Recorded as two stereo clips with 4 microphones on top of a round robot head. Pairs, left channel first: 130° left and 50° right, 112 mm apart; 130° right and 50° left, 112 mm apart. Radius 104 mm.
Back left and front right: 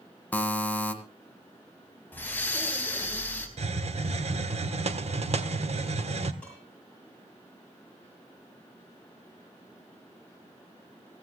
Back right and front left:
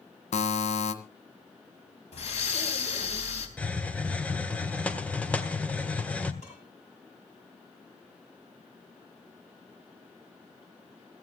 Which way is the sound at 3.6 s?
55° right.